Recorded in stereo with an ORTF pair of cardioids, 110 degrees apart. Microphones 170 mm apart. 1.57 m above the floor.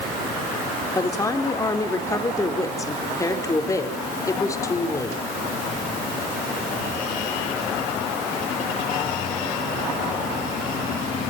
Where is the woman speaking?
20° left, 4.5 m.